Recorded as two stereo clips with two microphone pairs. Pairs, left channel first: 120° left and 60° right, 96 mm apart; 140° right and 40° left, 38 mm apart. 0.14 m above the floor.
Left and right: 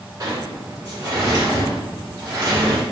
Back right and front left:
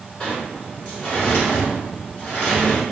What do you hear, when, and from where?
0.2 s a sliding door: 80° right, 1.2 m